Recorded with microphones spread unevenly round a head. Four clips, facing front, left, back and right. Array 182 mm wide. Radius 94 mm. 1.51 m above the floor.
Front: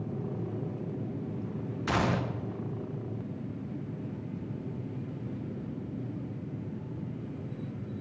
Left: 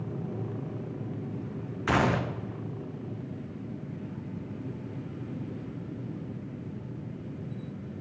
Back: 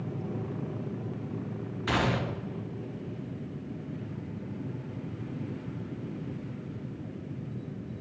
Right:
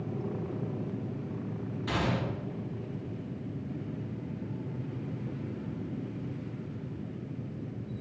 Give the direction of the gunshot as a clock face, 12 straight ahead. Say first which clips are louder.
Left 6 dB, back 1 dB; 9 o'clock.